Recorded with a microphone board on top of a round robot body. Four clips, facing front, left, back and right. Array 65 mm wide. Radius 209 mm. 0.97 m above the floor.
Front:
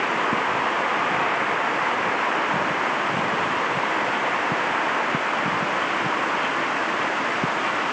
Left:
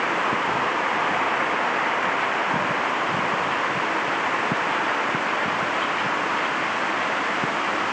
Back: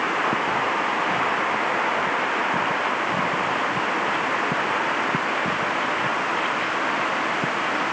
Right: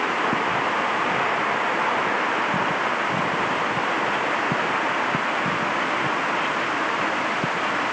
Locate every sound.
Only background noise.